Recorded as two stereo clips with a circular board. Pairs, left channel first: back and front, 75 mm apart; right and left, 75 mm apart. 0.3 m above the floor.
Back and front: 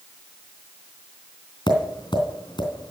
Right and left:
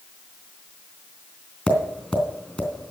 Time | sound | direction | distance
1.7 | tapping | 165° right | 3.5 m